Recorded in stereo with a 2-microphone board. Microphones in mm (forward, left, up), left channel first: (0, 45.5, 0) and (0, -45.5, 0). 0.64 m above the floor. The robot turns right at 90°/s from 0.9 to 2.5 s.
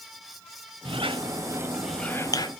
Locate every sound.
0.8 s a squeak: 80° right, 1.1 m; by 2.5 s 55° left (ahead or behind), 1.1 m